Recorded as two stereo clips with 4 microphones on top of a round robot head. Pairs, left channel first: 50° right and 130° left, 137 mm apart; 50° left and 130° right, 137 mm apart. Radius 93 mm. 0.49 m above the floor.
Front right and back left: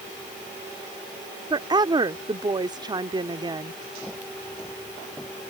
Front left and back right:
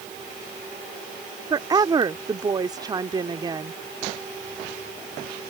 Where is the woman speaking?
Straight behind.